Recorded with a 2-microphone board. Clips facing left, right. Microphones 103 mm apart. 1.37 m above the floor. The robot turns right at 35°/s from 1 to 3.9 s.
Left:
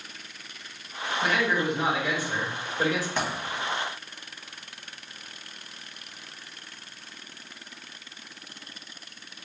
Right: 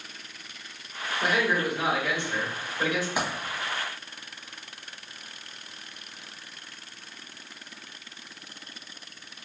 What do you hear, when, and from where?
1.2 s a man speaking: 25° right, 1.7 m; by 3.1 s 40° left, 1.7 m
3.2 s a dropped coin: 15° right (ahead or behind), 1.6 m; by 3.3 s 10° right (ahead or behind), 1.6 m